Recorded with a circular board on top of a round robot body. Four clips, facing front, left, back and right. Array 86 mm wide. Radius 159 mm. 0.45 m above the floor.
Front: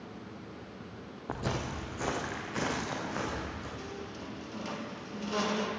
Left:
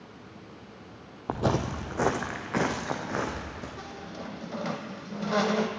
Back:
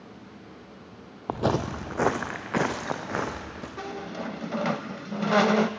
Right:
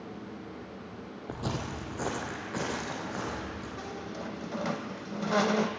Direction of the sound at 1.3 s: 150° left.